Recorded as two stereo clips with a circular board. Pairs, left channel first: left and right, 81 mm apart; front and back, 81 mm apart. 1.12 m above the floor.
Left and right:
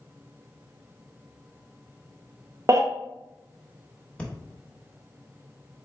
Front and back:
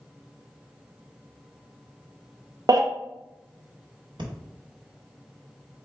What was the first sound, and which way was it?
A baby crying, 140° right.